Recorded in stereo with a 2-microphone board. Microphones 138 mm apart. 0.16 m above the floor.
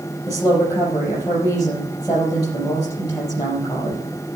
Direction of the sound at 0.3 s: 30° left (ahead or behind).